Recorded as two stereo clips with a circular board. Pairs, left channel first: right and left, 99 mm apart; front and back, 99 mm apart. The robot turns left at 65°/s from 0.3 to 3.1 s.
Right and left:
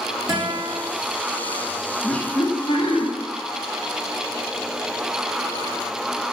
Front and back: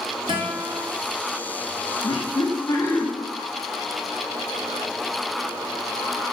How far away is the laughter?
About 1.6 m.